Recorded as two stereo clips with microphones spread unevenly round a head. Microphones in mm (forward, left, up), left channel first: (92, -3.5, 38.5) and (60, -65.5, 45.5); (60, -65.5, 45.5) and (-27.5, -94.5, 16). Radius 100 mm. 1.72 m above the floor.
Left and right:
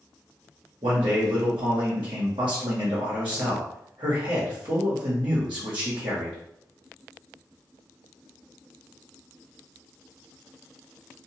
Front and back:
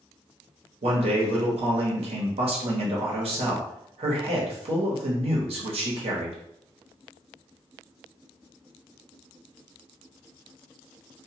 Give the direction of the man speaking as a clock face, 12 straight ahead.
5 o'clock.